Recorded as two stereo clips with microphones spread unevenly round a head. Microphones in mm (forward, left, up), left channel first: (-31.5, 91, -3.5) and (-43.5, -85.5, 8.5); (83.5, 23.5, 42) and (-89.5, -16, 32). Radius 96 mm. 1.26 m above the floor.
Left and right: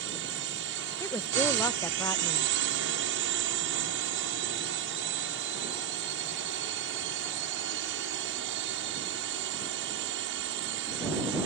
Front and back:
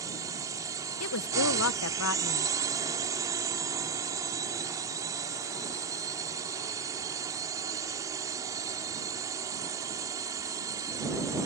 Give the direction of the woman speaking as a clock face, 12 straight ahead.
12 o'clock.